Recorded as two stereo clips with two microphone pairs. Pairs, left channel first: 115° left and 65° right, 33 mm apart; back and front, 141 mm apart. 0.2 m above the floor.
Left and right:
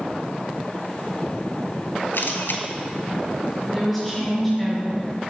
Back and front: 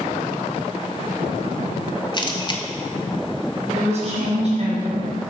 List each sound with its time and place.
2.1 s a camera shutter: 120° left, 0.8 m
3.7 s a woman speaking: 15° left, 3 m